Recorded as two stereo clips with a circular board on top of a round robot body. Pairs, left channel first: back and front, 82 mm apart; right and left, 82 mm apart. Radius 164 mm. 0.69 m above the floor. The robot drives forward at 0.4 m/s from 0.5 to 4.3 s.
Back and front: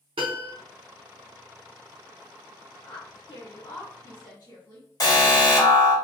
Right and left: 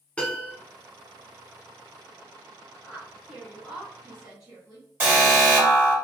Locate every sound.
0.2 s a piano: 15° right, 0.7 m
2.8 s a woman speaking: 170° left, 1.1 m; by 4.9 s 175° left, 1.7 m
5.0 s an alarm: 155° left, 1.8 m